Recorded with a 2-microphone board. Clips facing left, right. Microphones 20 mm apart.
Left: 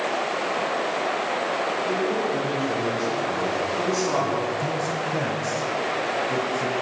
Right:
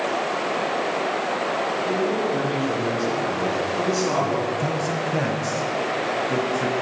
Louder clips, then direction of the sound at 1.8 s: Right 1 dB; 15° right (ahead or behind).